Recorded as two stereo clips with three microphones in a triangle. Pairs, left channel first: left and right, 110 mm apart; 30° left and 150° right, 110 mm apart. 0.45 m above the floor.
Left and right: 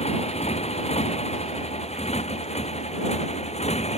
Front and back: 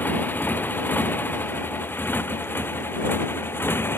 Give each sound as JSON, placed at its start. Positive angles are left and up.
{"t": 0.0, "sound": "a motorcycle", "azimuth_deg": 105}